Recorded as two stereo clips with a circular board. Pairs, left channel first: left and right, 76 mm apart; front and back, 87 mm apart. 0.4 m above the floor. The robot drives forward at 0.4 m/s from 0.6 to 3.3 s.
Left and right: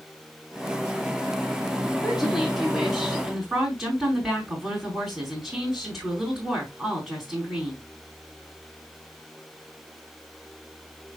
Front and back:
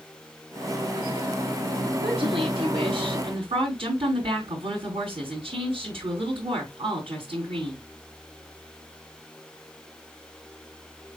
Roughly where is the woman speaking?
Behind.